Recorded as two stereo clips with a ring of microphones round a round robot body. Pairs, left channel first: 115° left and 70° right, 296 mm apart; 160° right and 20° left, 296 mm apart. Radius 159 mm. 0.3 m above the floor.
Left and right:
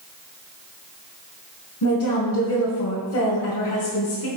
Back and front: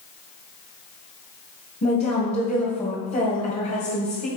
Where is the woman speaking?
140° left, 2.5 m.